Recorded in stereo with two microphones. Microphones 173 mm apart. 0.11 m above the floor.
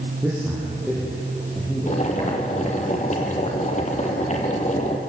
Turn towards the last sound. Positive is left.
turn(degrees=45)  # may be behind; listen again after turning